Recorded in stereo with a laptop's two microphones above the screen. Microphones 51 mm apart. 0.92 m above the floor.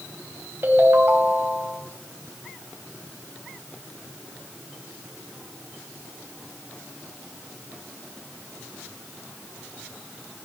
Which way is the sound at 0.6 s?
45° right (ahead or behind).